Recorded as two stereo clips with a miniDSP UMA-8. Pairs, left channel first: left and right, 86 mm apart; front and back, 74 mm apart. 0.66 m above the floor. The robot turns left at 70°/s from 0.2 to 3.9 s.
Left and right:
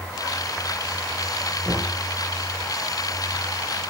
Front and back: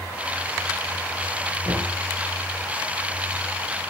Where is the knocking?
160° right, 8 m; by 2.0 s 175° left, 8 m.